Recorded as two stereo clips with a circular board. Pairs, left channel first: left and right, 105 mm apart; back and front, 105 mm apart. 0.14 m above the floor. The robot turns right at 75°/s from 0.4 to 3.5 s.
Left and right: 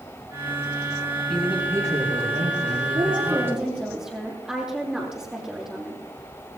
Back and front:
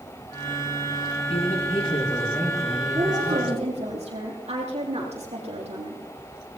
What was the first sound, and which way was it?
A man speaking, 175° left.